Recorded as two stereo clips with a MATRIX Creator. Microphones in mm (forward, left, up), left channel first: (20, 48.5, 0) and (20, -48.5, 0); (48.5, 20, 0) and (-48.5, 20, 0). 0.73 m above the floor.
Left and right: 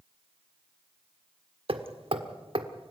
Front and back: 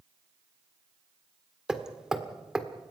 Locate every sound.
1.7 s hammering: 95° right, 1.6 m